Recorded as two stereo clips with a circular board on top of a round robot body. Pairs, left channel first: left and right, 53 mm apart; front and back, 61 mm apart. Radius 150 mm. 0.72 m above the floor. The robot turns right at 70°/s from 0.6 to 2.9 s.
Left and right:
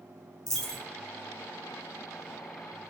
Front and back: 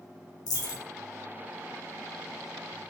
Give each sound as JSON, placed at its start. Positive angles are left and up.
{"t": 0.5, "sound": "a dropped coin", "azimuth_deg": 10, "distance_m": 1.1}